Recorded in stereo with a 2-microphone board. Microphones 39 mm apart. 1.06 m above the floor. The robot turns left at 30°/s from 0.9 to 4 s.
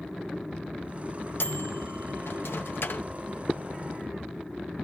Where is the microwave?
70° left (ahead or behind), 0.5 m; by 3.1 s 60° left (ahead or behind), 0.5 m.